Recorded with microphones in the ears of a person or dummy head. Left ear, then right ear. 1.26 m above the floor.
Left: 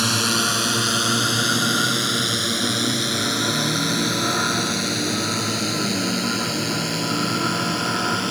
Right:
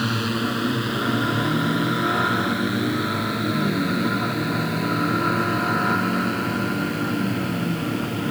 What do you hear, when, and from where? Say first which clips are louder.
0.0 s a drone: left 5 dB; 85° left